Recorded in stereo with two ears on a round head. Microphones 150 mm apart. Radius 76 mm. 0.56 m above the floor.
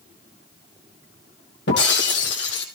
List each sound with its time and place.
1.7 s breaking glass: 80° left, 3 m